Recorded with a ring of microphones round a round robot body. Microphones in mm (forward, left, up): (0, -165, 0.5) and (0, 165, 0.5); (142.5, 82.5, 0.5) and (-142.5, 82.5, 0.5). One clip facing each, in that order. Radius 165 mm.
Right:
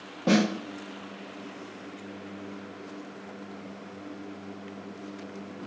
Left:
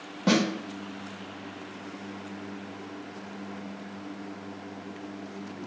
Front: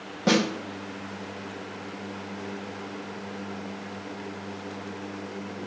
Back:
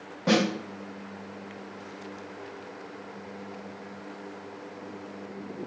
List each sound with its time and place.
0.3 s a snare drum: 25° left, 0.8 m